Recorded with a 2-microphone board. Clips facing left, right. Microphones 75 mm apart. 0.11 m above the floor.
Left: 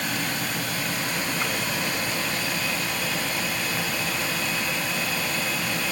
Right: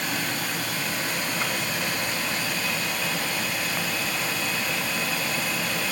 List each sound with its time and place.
Only background noise.